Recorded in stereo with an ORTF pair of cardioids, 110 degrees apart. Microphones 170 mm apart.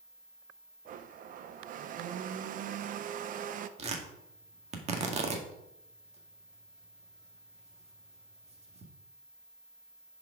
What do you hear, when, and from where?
0.8 s a blender: 60° right, 0.7 m
3.8 s tearing paper: 40° right, 1.8 m